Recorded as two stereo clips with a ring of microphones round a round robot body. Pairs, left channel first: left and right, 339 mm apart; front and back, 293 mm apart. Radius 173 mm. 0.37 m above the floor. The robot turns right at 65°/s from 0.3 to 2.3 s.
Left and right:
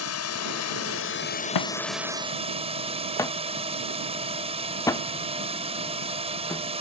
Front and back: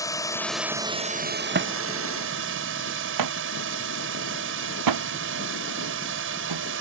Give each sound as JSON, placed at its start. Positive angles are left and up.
{"t": 0.0, "sound": "a drone", "azimuth_deg": 75}
{"t": 1.6, "sound": "a thud", "azimuth_deg": 125}